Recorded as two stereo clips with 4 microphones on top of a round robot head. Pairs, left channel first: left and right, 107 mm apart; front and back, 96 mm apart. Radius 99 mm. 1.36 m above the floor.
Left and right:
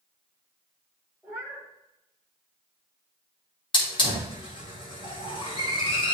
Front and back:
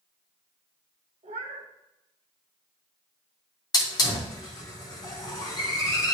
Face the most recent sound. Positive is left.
turn(degrees=50)